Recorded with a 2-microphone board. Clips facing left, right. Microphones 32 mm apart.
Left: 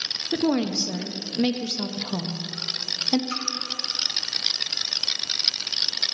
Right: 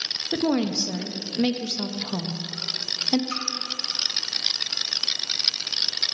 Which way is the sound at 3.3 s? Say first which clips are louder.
Even; 5° left (ahead or behind).